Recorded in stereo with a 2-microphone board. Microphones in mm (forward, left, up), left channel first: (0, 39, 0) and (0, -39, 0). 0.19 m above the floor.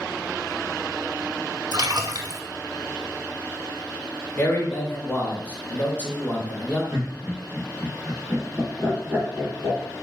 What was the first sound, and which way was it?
A splash, 55° right (ahead or behind).